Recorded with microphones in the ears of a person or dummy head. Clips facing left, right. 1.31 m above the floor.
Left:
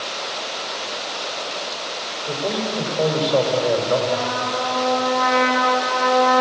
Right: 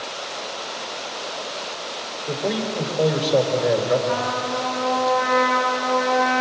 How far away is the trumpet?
About 9.5 m.